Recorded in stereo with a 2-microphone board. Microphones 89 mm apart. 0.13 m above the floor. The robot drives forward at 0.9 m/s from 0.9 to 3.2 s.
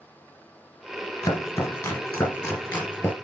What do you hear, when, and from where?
1.2 s chopping: 30° left (ahead or behind), 1.9 m; by 3.1 s 20° left (ahead or behind), 3 m